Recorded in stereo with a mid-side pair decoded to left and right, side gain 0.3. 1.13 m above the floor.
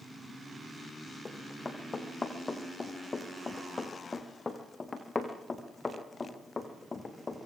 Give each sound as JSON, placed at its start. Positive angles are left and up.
{"t": 1.2, "sound": "running footsteps", "azimuth_deg": 40, "distance_m": 4.5}